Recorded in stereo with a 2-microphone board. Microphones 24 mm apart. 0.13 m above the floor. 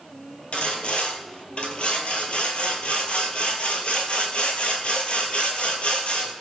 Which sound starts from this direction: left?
Sawing, at 0.5 s.